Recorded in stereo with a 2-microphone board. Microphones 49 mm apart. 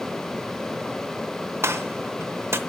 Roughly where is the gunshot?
Right.